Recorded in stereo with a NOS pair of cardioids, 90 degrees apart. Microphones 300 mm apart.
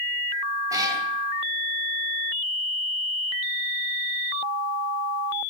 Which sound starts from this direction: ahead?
A cat meowing, at 0.7 s.